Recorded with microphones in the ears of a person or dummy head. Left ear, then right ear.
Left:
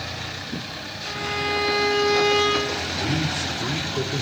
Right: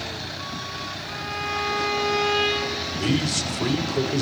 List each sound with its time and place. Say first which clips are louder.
1.0 s a violin: left 6 dB; 20° left (ahead or behind), 8.5 m
3.0 s a man speaking: even; 85° right, 5.5 m